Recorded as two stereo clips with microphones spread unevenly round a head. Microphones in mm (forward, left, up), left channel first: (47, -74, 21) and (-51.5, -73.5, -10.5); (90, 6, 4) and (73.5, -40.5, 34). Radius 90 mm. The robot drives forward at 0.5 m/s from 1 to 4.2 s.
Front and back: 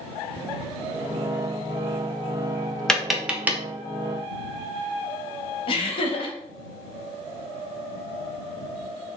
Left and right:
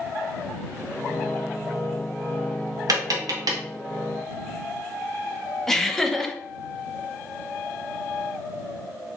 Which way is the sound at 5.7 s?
40° left.